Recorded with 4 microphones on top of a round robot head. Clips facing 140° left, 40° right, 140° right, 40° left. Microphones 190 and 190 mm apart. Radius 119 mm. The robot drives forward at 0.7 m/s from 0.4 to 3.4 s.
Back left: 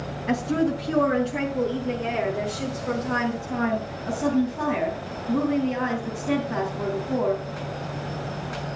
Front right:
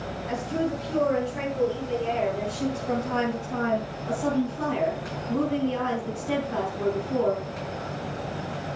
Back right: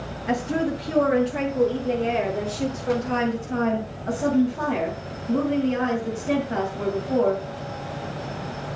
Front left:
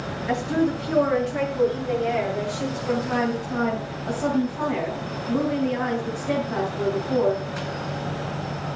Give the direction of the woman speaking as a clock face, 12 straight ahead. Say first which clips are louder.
Back left 5 dB, front left 1 dB; 7 o'clock.